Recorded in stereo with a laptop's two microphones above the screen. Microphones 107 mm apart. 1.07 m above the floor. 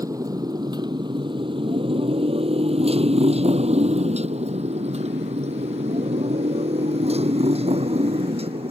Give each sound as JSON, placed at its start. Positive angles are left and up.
{"t": 0.0, "sound": "a motorcycle", "side_deg": -35}